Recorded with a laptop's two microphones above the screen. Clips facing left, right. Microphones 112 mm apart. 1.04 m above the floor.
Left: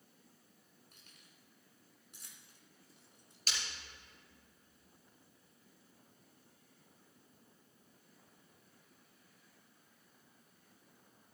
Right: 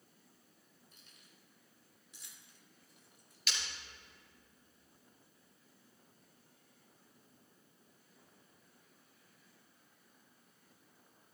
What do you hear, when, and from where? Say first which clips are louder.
0.9 s keys jangling: even; 70° left (ahead or behind), 3 m; by 3.4 s 25° left (ahead or behind), 2 m
3.5 s breaking glass: even; 40° left (ahead or behind), 4.5 m